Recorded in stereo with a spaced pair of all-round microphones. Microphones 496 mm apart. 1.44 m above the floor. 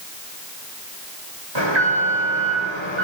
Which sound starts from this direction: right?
An alarm, at 1.6 s.